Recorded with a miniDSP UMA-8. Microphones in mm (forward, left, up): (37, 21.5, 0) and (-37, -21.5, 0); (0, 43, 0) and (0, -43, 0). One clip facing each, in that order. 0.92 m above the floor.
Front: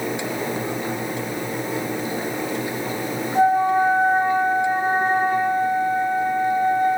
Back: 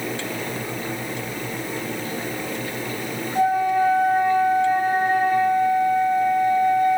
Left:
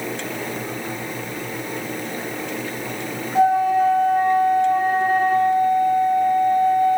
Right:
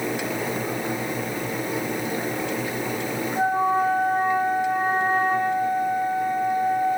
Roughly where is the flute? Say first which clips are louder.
Front 2 dB, left 6 dB; left.